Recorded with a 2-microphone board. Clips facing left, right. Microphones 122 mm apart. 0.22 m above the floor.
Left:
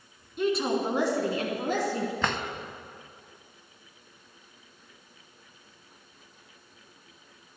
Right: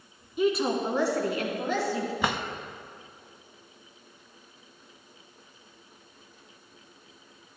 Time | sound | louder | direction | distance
0.4 | a woman speaking | right 1 dB | 5° right (ahead or behind) | 1.8 m
2.2 | a drawer | right 1 dB | 10° right (ahead or behind) | 0.5 m